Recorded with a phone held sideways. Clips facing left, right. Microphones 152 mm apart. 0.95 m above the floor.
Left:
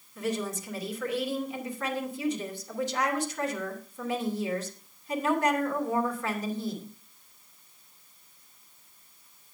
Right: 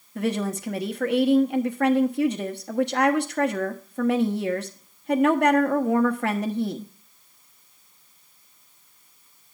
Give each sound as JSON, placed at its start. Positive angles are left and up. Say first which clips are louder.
{"t": 0.1, "sound": "a woman speaking", "louder": "right 6 dB", "side_deg": -65, "distance_m": 1.1}